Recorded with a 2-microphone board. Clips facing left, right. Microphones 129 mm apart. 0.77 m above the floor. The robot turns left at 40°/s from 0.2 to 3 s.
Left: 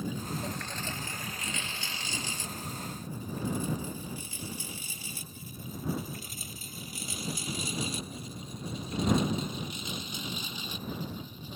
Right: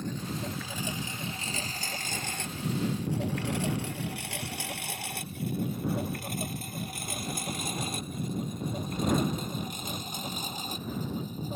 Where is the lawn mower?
5° left (ahead or behind); by 11.6 s 45° right (ahead or behind).